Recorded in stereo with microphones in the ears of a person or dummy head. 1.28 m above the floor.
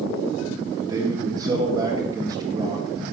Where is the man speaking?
25° right (ahead or behind), 1.6 m.